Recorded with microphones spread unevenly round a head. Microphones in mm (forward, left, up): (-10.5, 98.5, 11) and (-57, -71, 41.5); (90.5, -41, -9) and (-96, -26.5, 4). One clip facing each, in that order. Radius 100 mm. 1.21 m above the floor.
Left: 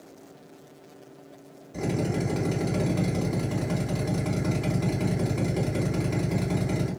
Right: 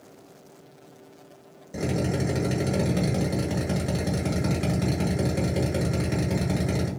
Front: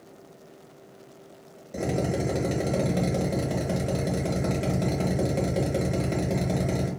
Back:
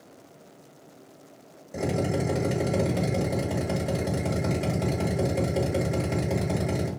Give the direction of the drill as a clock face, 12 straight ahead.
3 o'clock.